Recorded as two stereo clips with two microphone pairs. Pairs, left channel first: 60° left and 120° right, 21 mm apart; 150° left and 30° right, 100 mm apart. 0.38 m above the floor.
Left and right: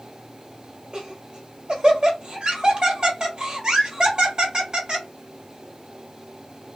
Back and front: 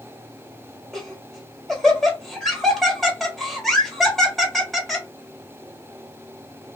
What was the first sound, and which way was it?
Laughter, 120° right.